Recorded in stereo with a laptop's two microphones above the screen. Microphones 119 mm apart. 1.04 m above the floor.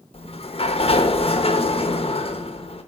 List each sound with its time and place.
0.1 s a sliding door: 55° left (ahead or behind), 0.8 m